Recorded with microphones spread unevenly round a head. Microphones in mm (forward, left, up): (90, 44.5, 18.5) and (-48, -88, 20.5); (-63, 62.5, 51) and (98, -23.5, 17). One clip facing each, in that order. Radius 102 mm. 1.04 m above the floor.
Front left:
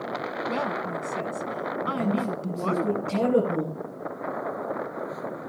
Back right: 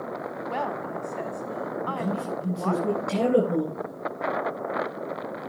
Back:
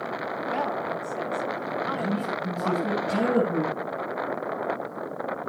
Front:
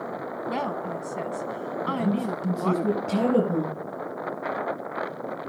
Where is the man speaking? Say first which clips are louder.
Front left 6 dB, front 5 dB; 55° right, 9 m.